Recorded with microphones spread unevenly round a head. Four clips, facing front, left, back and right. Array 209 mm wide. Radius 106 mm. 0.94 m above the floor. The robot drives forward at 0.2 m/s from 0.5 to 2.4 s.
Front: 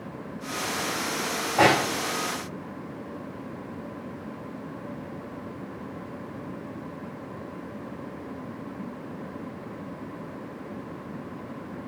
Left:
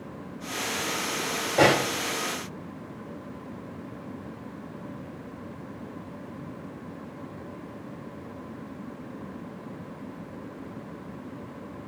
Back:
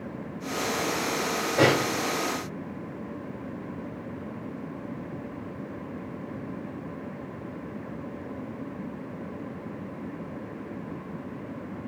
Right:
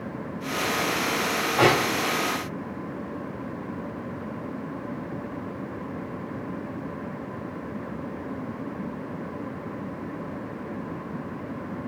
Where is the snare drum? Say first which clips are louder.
Even, front 2 dB; 125° left, 1.8 m.